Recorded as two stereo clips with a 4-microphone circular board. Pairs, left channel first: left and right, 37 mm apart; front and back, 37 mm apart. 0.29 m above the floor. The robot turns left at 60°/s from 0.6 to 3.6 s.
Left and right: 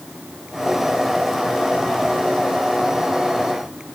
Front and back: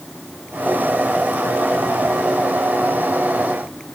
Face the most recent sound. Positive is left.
No sound to turn to.